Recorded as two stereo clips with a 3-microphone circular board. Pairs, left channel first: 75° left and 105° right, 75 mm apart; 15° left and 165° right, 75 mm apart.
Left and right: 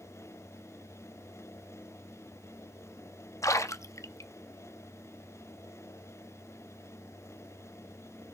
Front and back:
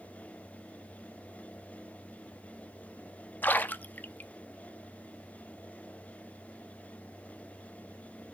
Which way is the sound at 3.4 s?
70° left.